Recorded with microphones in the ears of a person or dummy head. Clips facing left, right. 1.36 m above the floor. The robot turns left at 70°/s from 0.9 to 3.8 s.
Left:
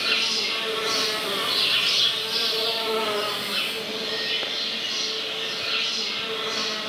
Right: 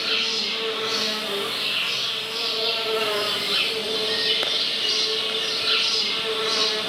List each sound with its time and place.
0.0 s an insect: 125° left, 1.2 m; by 6.9 s 80° right, 1.2 m